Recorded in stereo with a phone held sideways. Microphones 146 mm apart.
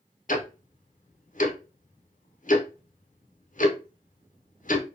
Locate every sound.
0.3 s ticking: 65° left (ahead or behind), 0.7 m